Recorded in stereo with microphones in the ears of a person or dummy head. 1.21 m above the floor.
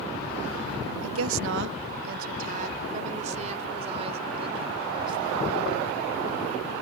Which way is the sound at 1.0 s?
85° right.